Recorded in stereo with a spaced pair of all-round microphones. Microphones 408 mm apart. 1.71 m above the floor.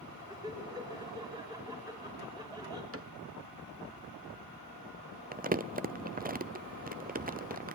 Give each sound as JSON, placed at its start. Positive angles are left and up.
{"t": 0.3, "sound": "laughter", "side_deg": -10, "distance_m": 7.0}
{"t": 2.9, "sound": "a cupboard door", "side_deg": -35, "distance_m": 1.2}
{"t": 5.3, "sound": "crumpling", "side_deg": -20, "distance_m": 0.6}